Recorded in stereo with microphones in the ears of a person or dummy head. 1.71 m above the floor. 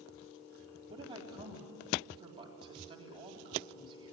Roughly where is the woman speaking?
Centre.